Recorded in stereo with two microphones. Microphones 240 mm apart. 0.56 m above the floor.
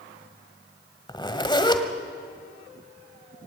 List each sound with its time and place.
1.1 s a zipper: 20° left (ahead or behind), 1.5 m